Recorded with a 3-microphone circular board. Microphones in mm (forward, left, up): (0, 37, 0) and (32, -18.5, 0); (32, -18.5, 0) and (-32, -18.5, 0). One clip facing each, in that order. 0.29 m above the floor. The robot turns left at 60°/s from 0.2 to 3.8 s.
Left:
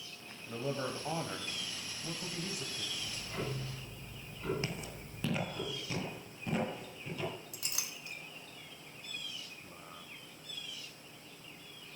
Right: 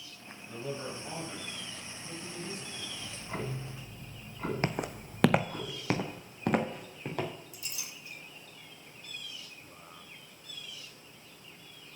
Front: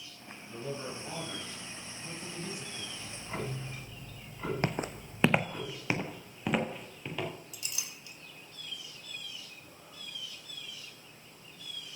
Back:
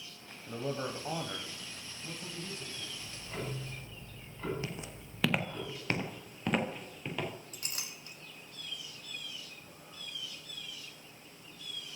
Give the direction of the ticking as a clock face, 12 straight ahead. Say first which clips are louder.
Right 4 dB, front 4 dB; 1 o'clock.